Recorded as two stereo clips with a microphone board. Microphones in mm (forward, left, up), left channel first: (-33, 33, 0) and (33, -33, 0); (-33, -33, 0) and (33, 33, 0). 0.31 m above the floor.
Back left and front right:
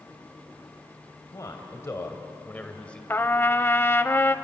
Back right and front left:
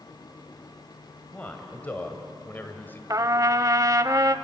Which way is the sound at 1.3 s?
160° left.